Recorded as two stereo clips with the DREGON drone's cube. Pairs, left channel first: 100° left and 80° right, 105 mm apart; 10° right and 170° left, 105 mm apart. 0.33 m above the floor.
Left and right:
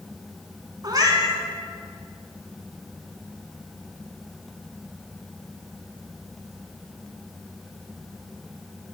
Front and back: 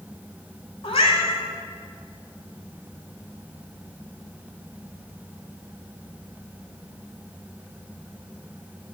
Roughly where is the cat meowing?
Ahead right.